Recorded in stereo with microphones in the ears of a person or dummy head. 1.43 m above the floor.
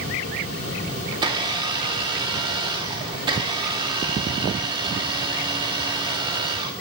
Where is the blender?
30° right (ahead or behind), 1.2 m.